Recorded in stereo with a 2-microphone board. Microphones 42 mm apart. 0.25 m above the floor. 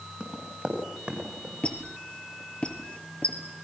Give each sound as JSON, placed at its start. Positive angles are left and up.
{"t": 0.2, "sound": "running footsteps", "side_deg": -25, "distance_m": 6.5}
{"t": 1.6, "sound": "a squeak", "side_deg": 30, "distance_m": 3.0}